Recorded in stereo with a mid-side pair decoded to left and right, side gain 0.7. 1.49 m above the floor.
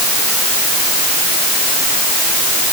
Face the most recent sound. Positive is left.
No sound to turn to.